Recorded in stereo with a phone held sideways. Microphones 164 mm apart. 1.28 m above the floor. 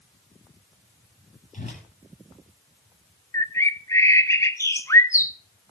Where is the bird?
20° left (ahead or behind), 0.6 m.